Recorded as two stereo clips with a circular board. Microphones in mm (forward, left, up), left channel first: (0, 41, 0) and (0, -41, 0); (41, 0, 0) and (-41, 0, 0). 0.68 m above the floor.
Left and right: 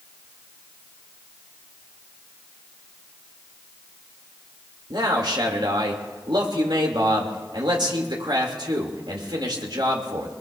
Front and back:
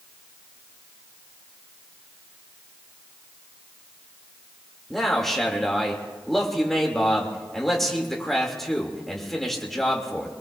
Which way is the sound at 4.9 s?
85° right.